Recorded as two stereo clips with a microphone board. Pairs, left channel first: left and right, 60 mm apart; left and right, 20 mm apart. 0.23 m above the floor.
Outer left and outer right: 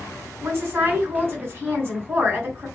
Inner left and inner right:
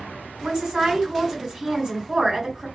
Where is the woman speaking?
45° right (ahead or behind), 1.8 m.